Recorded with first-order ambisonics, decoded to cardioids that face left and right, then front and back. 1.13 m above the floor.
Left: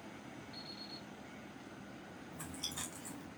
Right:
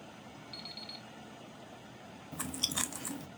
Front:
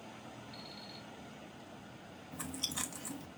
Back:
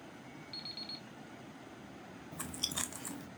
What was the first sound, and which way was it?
An alarm clock, 135° right.